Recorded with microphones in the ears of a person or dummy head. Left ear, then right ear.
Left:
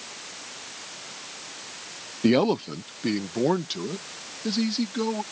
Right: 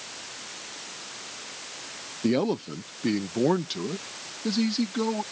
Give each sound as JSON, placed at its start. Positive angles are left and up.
{"t": 2.2, "sound": "a man speaking", "side_deg": 40}